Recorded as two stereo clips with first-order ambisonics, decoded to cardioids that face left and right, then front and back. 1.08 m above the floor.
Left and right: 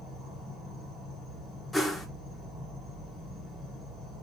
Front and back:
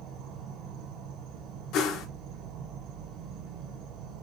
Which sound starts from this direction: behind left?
An insect, at 0.0 s.